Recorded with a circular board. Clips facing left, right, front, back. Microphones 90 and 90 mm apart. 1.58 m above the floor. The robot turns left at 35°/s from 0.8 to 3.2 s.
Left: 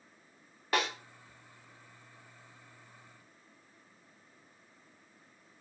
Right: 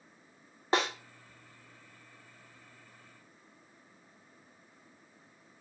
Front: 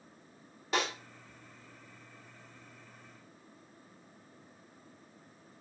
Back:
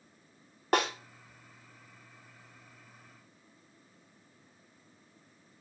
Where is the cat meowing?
I don't hear a cat meowing.